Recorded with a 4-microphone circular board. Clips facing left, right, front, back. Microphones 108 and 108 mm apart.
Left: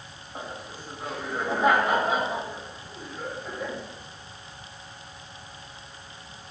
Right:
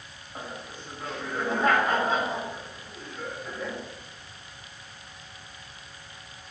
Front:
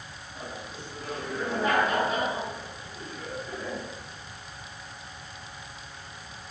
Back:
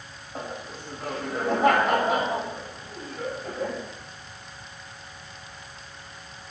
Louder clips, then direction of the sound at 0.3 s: Left 1 dB, back 4 dB; 170° left.